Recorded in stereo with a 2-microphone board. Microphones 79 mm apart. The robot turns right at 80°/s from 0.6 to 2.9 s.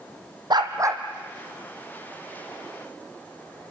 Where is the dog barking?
60° right, 2 m; by 1.0 s 25° right, 2 m.